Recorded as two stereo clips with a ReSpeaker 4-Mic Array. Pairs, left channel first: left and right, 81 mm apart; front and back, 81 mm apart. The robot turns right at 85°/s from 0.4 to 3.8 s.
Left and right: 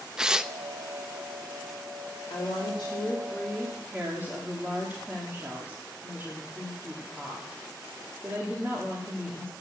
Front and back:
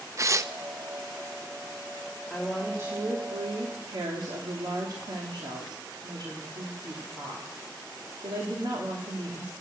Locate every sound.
0.2 s tearing paper: 165° right, 0.5 m; by 0.5 s 155° right, 0.5 m
2.3 s a woman speaking: 75° left, 2.5 m; by 9.5 s 155° right, 2.5 m